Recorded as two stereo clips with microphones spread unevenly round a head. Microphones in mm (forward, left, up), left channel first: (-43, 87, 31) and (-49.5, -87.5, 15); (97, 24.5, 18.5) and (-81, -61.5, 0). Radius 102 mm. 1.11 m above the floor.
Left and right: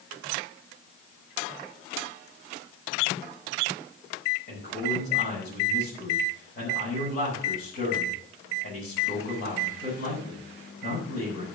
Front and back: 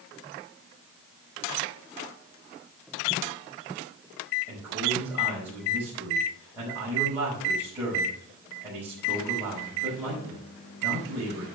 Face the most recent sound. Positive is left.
turn(degrees=125)